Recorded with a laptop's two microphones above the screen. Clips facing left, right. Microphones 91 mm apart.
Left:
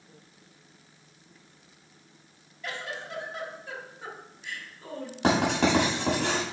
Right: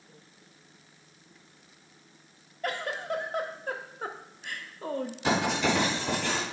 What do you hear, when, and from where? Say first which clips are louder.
2.6 s a giggle: right 5 dB; 50° right (ahead or behind), 0.6 m
5.2 s writing: left 4 dB; 70° left (ahead or behind), 3 m